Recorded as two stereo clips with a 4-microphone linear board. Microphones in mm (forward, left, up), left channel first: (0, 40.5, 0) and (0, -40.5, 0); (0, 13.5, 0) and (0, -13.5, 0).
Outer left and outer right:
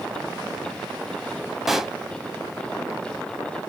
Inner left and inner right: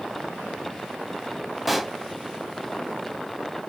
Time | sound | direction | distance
1.7 | a pop | 5° right (ahead or behind) | 0.5 m